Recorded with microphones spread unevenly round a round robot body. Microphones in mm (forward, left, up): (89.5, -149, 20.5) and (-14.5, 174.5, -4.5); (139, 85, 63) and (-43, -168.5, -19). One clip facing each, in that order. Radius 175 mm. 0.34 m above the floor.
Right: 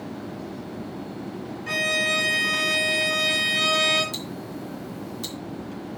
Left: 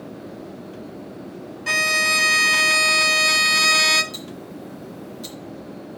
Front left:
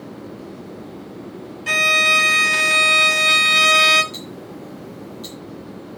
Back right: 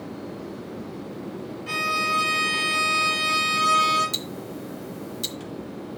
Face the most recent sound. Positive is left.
turn(degrees=-145)